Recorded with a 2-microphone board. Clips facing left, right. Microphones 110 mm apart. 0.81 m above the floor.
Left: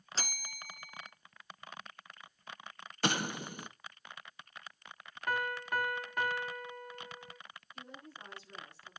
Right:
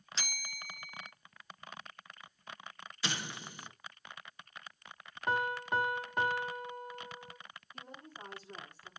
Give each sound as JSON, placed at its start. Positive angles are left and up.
{"t": 0.1, "sound": "a bell", "side_deg": 35, "distance_m": 0.6}
{"t": 3.0, "sound": "an explosion", "side_deg": 50, "distance_m": 0.9}
{"t": 5.3, "sound": "a piano", "side_deg": -20, "distance_m": 0.8}
{"t": 7.7, "sound": "a woman speaking", "side_deg": -45, "distance_m": 6.5}